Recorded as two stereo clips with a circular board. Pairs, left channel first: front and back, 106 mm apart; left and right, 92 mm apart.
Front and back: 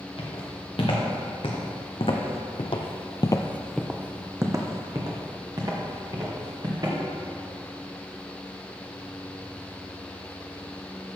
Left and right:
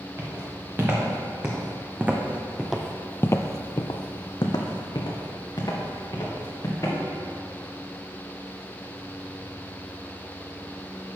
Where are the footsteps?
30° right, 2.5 m; by 7.0 s 135° left, 3 m.